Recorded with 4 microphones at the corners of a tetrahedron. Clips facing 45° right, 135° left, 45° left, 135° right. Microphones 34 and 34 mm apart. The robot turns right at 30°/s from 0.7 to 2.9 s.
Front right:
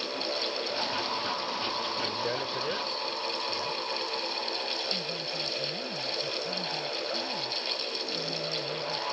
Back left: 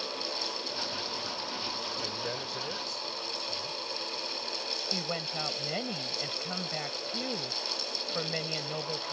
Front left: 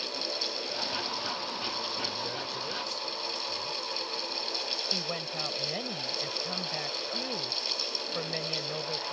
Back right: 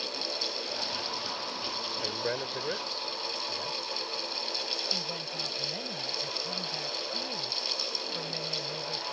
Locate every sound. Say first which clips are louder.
2.0 s a man speaking: front right 5 dB, back right 2 dB; 115° right; by 3.8 s 85° right
4.9 s a woman speaking: front right 1 dB, front left 1 dB; 100° left